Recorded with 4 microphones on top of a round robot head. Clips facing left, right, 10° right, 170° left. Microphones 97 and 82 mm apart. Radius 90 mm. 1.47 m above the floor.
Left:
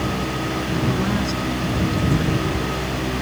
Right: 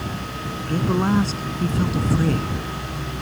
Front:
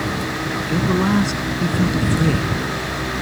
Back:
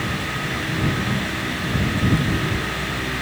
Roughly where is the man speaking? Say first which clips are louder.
Right 4 dB, front 7 dB; ahead right.